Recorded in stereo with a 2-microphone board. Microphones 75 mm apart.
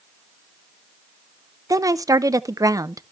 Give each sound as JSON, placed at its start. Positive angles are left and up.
{"t": 1.7, "sound": "a woman speaking", "side_deg": -50, "distance_m": 0.5}